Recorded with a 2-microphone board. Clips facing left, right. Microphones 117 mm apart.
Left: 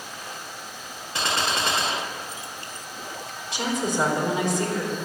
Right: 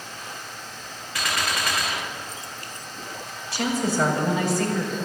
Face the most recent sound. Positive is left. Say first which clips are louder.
# right 2 dB
turn(degrees=20)  # may be behind; listen again after turning